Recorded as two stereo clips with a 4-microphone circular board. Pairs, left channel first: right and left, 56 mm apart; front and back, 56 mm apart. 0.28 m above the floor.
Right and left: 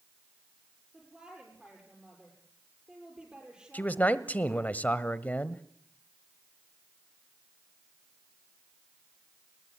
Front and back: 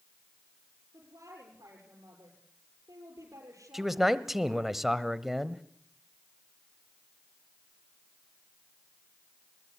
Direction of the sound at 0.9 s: 165° left.